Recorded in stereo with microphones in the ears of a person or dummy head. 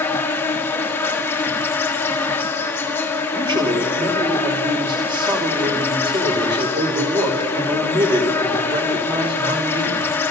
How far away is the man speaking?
About 3 m.